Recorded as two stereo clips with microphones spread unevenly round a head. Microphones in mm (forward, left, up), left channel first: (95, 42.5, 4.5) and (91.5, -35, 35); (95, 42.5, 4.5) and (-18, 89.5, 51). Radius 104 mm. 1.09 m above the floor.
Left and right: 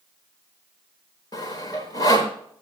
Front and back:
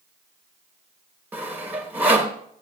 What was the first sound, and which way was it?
Sawing, 145° left.